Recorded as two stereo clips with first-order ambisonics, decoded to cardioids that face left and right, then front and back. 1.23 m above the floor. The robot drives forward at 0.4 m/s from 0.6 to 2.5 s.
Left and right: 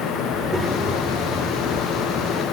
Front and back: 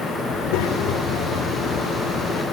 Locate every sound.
0.3 s a child speaking: 5° right, 2.5 m